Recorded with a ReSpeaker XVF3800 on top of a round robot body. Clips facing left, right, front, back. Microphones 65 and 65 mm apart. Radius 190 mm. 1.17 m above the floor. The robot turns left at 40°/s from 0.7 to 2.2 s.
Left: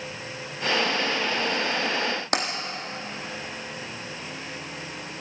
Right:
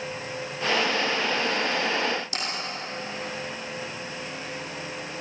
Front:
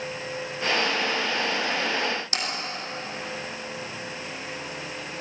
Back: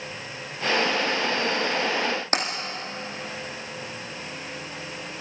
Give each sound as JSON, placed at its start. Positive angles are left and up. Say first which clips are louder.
{"t": 2.3, "sound": "tapping", "louder": "left 6 dB, back 5 dB", "azimuth_deg": 125, "distance_m": 1.8}